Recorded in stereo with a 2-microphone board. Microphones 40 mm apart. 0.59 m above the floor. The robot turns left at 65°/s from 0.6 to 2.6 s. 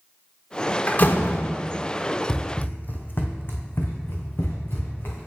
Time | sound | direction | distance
0.9 | a door slam | 45° left (ahead or behind) | 1.0 m
2.3 | running footsteps | 15° left (ahead or behind) | 0.8 m